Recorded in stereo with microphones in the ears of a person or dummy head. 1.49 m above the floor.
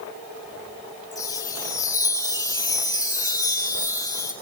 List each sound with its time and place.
1.1 s a chime: 20° left (ahead or behind), 1.5 m